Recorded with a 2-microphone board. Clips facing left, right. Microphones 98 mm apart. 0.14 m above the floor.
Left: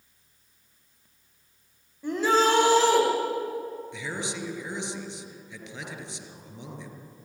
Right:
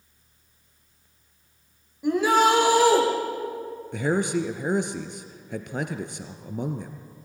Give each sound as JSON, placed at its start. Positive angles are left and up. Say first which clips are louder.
{"t": 2.0, "sound": "a shout", "louder": "right 3 dB", "side_deg": -15, "distance_m": 7.5}
{"t": 3.9, "sound": "a man speaking", "louder": "right 10 dB", "side_deg": -55, "distance_m": 1.9}